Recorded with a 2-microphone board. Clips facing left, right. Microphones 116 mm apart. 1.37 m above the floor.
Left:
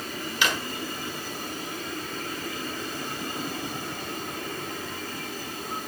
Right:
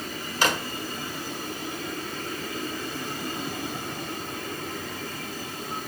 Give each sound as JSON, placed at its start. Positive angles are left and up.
{"t": 0.4, "sound": "a drawer", "side_deg": -45, "distance_m": 1.7}